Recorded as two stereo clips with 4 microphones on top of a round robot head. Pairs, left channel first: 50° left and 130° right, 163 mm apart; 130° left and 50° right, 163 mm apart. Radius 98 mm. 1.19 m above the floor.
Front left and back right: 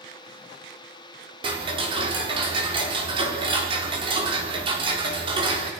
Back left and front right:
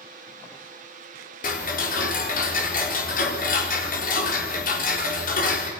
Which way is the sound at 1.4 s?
170° left.